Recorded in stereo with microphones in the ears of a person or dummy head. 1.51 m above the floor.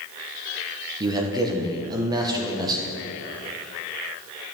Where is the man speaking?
25° right (ahead or behind), 1.3 m.